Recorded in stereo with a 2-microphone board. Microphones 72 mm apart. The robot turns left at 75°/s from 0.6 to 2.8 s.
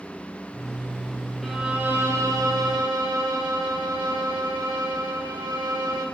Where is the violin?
5° left, 3.5 m; by 6.0 s 100° right, 3.5 m.